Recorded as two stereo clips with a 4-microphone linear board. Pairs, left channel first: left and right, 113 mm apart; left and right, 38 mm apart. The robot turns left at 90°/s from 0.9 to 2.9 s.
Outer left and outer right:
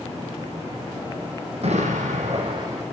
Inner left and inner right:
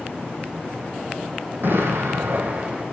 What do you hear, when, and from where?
1.6 s an explosion: 55° right, 7 m; by 2.8 s 165° right, 7 m